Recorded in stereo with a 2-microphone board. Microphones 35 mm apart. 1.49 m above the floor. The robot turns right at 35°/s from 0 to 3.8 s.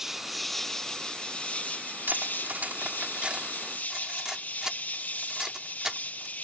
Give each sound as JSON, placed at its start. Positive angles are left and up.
{"t": 0.0, "sound": "an insect", "azimuth_deg": -15}
{"t": 2.1, "sound": "cutlery clinking", "side_deg": -75}